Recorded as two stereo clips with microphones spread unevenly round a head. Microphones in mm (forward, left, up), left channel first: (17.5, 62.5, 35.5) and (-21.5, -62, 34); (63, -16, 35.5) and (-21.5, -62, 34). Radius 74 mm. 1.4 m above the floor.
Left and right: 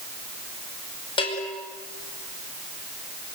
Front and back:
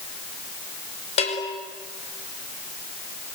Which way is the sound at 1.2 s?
20° left.